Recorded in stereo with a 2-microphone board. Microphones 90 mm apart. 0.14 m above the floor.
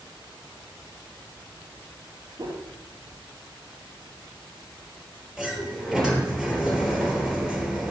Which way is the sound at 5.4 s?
Centre (ahead or behind).